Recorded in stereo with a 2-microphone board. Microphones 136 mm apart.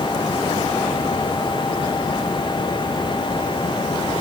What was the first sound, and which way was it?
Only background noise.